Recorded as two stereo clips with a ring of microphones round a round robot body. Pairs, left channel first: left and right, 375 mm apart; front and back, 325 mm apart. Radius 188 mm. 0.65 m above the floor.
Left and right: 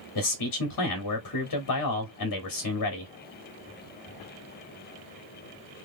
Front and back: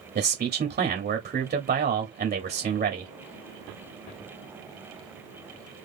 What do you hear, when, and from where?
0.1 s a man speaking: 120° left, 1.1 m